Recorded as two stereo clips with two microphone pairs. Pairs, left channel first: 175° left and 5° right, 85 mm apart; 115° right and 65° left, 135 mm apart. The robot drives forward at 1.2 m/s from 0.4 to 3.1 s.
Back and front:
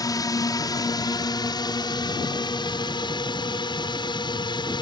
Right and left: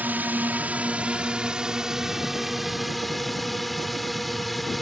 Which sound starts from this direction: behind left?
A drone, at 0.0 s.